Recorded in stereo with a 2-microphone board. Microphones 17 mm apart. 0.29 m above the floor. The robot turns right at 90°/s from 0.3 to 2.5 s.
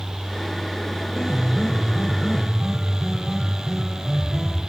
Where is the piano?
20° left (ahead or behind), 0.7 m; by 4.6 s 15° right (ahead or behind), 0.7 m.